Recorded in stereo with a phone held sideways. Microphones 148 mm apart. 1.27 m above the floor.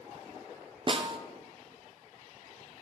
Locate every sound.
0.9 s a snare drum: 40° right (ahead or behind), 0.5 m